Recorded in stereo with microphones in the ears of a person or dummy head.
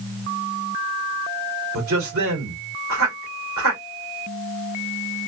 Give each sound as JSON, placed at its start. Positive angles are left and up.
{"t": 1.7, "sound": "a man speaking", "side_deg": -55, "distance_m": 2.5}